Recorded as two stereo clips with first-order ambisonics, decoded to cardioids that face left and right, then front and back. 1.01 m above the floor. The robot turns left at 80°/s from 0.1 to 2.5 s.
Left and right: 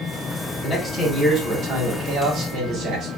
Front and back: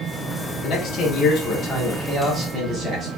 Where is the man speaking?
40° left, 1.1 m; by 3.1 s 110° right, 1.1 m.